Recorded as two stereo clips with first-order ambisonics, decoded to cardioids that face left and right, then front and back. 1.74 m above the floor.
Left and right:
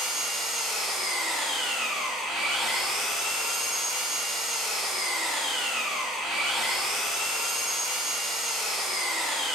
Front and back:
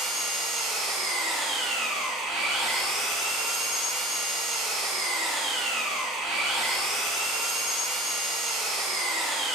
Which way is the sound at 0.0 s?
165° right.